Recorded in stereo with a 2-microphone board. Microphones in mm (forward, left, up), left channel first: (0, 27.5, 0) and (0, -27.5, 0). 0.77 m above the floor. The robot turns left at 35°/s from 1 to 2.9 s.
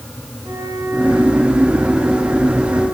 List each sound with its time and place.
0.4 s a flute: 75° right, 9.5 m; by 2.8 s 140° right, 9.5 m